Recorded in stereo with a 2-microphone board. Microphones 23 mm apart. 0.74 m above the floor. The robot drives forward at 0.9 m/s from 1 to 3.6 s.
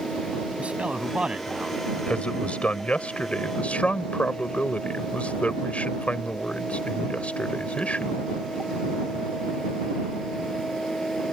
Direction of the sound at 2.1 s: 65° left (ahead or behind).